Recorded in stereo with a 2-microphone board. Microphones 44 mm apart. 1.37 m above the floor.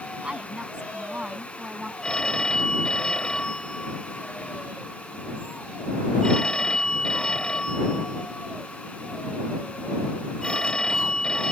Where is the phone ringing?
20° left (ahead or behind).